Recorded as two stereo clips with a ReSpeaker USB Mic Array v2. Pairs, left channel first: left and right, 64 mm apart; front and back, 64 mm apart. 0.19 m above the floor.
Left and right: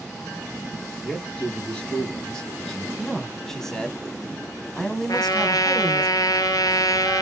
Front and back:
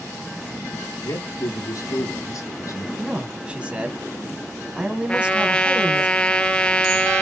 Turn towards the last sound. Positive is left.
turn(degrees=75)